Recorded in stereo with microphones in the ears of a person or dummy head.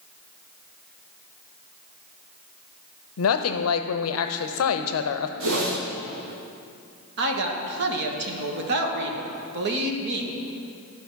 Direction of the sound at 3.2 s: 80° left.